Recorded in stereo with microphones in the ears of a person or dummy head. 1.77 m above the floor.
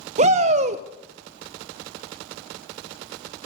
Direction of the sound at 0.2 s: 35° right (ahead or behind).